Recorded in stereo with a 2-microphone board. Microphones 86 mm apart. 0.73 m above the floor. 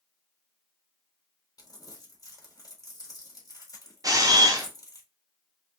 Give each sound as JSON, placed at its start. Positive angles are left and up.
{"t": 1.6, "sound": "crumpling", "side_deg": 45, "distance_m": 1.6}
{"t": 4.0, "sound": "a camera shutter", "side_deg": -45, "distance_m": 0.9}